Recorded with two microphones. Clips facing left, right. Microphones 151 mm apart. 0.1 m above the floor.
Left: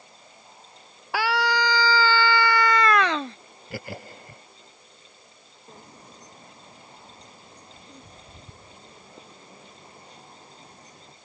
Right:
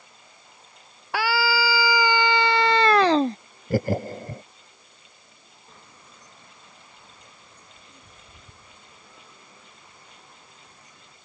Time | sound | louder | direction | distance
1.1 | a scream | even | centre (ahead or behind) | ?
3.7 | laughter | right 13 dB | 45° right (ahead or behind) | ?
5.7 | a bird | left 6 dB | 35° left (ahead or behind) | ?